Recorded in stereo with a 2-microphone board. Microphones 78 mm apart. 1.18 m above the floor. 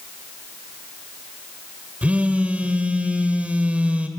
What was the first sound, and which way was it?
A phone buzzing, 20° right (ahead or behind).